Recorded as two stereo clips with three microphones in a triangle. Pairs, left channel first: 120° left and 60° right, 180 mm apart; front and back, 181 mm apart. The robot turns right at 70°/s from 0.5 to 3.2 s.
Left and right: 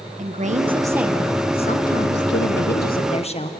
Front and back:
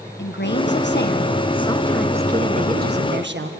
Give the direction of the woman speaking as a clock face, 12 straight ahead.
12 o'clock.